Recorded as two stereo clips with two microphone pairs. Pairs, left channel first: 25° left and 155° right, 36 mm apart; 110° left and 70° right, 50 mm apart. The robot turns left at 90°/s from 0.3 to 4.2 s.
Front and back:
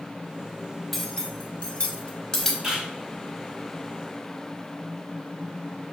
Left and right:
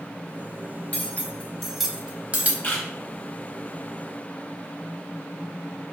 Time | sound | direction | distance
0.9 | cutlery clinking | 95° left | 0.6 m
2.6 | a camera shutter | 120° left | 1.8 m